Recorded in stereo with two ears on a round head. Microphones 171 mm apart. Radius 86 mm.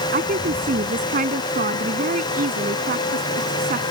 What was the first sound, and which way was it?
A woman speaking, 45° right (ahead or behind).